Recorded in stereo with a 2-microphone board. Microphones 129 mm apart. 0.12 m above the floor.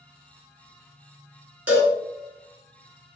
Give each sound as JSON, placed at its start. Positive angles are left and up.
{"t": 1.7, "sound": "a cowbell", "side_deg": -10, "distance_m": 1.1}